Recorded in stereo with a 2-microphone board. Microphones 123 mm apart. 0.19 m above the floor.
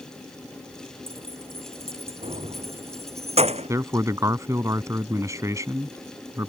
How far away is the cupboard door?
I don't hear a cupboard door.